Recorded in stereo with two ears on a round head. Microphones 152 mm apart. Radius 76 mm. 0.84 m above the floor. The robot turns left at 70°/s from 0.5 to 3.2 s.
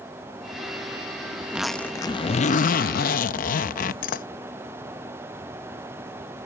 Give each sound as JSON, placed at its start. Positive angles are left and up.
{"t": 1.4, "sound": "a zipper", "azimuth_deg": -160}